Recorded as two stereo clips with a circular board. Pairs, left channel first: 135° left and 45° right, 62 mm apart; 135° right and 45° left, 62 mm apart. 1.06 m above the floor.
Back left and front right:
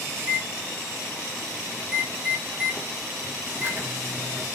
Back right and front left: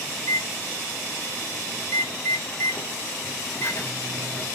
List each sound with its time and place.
0.2 s a microwave: 100° right, 0.9 m